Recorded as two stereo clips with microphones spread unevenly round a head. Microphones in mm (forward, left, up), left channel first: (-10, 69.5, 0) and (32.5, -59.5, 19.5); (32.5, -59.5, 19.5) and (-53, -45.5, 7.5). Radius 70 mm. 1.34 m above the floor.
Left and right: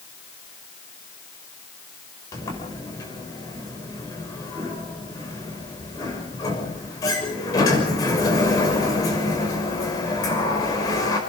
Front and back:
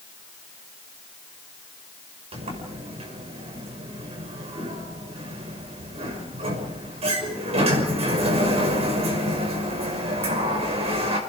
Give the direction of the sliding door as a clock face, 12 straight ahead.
6 o'clock.